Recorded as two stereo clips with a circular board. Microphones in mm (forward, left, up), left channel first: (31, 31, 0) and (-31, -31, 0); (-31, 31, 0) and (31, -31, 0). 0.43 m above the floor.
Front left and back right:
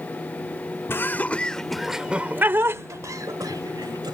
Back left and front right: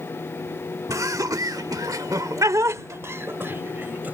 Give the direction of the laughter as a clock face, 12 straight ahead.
12 o'clock.